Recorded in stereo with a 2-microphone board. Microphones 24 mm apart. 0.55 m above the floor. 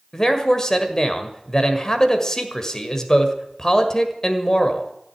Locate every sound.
0.1 s a man speaking: 25° left (ahead or behind), 1.8 m